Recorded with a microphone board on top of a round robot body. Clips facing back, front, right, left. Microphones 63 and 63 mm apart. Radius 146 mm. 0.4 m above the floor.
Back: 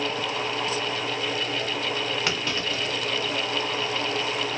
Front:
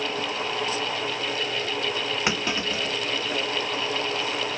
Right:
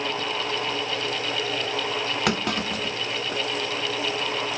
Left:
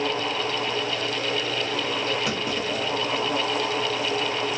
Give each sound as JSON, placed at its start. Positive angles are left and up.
{"t": 2.3, "sound": "a clunk", "azimuth_deg": -70, "distance_m": 0.7}